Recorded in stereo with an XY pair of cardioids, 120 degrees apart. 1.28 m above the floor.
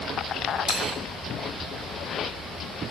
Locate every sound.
0.7 s a dropped coin: 50° left, 4.5 m